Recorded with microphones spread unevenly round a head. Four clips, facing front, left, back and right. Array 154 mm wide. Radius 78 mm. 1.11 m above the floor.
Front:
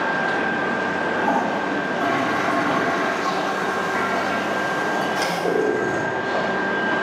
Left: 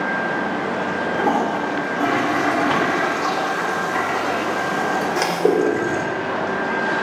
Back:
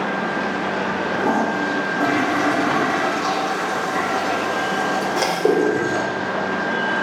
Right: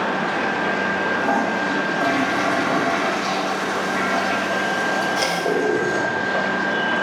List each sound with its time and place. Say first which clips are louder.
1.1 s a toilet flushing: left 3 dB, back 2 dB; 130° left, 3.5 m